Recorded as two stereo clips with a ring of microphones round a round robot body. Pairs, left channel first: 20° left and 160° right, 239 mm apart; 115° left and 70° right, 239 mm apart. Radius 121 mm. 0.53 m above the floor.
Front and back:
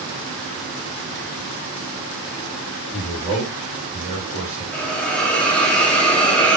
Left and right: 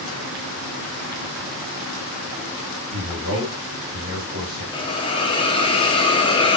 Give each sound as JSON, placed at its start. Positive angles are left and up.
{"t": 2.9, "sound": "a man speaking", "azimuth_deg": -85, "distance_m": 2.0}
{"t": 4.7, "sound": "a hiss", "azimuth_deg": 100, "distance_m": 0.6}